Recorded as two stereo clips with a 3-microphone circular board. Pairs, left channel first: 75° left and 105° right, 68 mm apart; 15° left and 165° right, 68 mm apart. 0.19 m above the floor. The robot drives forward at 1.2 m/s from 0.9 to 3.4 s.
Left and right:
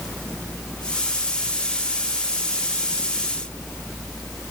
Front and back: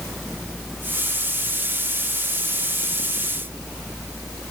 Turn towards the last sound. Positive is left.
No sound to turn to.